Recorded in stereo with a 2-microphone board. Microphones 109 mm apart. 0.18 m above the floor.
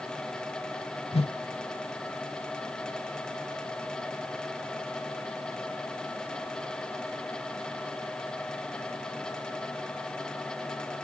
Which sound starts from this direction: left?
A whoosh, at 1.1 s.